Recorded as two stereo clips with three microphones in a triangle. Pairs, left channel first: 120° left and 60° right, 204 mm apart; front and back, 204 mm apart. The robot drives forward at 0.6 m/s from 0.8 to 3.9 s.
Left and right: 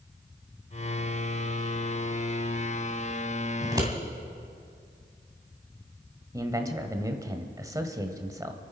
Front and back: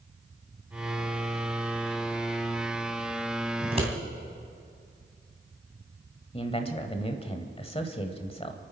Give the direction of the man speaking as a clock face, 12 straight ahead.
12 o'clock.